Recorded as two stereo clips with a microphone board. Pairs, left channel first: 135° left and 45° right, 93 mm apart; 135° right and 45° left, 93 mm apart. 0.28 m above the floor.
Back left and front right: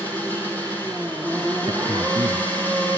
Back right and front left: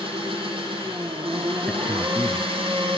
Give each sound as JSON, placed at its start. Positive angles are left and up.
{"t": 0.0, "sound": "an engine running", "azimuth_deg": 65, "distance_m": 4.0}
{"t": 1.7, "sound": "a man speaking", "azimuth_deg": -40, "distance_m": 1.9}